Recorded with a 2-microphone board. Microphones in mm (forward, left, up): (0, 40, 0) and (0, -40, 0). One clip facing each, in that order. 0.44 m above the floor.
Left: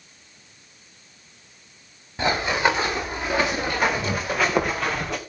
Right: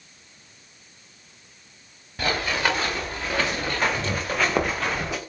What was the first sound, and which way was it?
Running footsteps, 20° left (ahead or behind).